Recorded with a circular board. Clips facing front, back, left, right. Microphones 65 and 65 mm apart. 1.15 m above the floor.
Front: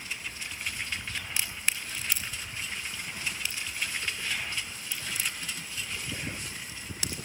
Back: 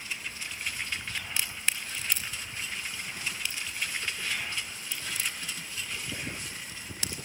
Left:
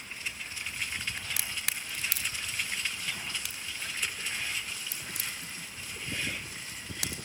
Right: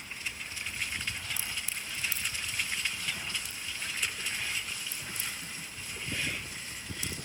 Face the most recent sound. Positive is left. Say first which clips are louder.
# even, left 1 dB
turn(degrees=80)